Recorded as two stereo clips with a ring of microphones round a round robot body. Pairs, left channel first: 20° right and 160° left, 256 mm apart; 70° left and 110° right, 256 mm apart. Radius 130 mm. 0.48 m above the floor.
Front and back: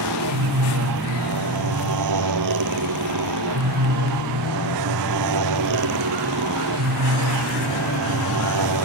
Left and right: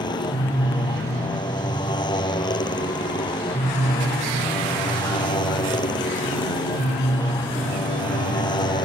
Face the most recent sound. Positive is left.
turn(degrees=140)